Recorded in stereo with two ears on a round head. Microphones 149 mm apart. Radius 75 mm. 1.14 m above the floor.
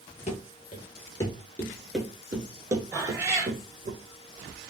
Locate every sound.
0.3 s running footsteps: 40° left (ahead or behind), 1.5 m; by 3.9 s 45° right (ahead or behind), 1.5 m
2.9 s a cat meowing: 15° right (ahead or behind), 1.7 m